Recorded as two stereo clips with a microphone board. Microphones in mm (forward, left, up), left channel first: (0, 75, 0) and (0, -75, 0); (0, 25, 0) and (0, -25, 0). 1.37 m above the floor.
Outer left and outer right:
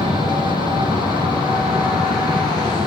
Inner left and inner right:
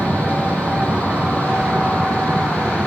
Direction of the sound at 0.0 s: 30° right (ahead or behind).